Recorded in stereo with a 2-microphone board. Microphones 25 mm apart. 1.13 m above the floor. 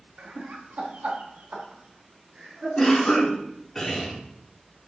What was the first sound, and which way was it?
Laughter, 60° right (ahead or behind).